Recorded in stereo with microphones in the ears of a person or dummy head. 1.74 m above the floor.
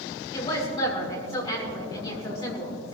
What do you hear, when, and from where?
0.3 s a woman speaking: 30° left (ahead or behind), 5.5 m